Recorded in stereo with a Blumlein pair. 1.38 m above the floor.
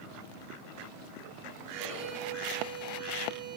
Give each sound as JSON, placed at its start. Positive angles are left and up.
{"t": 1.7, "sound": "a violin", "azimuth_deg": -45, "distance_m": 4.0}